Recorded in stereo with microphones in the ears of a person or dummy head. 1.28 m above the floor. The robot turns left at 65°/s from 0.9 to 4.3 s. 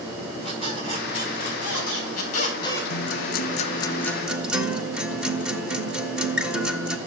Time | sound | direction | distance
0.4 | a squeak | 135° left | 5 m
2.9 | a guitar | 80° left | 1.4 m